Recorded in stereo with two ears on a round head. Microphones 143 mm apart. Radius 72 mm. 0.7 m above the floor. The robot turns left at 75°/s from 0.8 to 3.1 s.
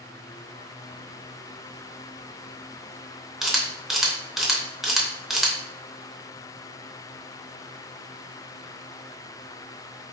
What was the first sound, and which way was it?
A camera shutter, centre (ahead or behind).